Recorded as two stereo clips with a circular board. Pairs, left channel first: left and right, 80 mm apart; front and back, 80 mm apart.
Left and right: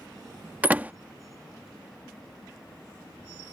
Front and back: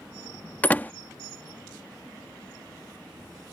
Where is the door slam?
45° right.